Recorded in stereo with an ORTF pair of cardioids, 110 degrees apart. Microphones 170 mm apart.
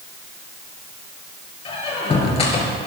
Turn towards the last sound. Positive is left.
turn(degrees=35)